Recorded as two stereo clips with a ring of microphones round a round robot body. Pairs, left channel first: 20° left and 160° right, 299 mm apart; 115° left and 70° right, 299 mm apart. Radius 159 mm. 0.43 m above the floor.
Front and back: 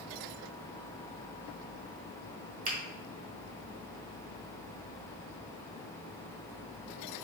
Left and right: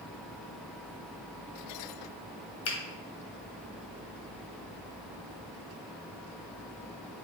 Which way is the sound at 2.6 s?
145° left.